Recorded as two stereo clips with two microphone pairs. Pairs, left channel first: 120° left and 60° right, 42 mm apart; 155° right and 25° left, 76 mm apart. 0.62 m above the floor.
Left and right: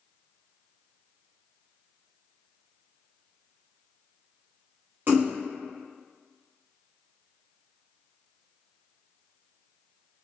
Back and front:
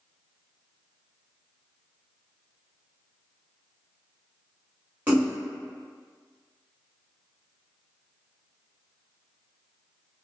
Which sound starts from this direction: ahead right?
A splash, at 5.1 s.